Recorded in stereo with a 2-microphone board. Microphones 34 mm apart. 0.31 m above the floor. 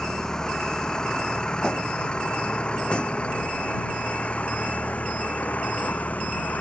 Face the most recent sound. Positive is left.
turn(degrees=50)  # may be behind; listen again after turning